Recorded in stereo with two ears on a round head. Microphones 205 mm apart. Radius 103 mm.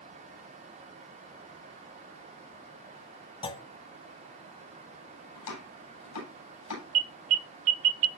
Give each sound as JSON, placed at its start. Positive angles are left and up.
{"t": 3.4, "sound": "a clunk", "side_deg": 20, "distance_m": 0.9}
{"t": 5.3, "sound": "chopping", "side_deg": 80, "distance_m": 9.0}
{"t": 7.0, "sound": "an alarm", "side_deg": -70, "distance_m": 1.1}